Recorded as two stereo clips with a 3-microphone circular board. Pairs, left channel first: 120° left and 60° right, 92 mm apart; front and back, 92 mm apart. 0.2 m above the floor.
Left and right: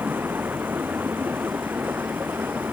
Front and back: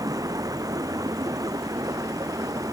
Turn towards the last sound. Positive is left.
turn(degrees=-130)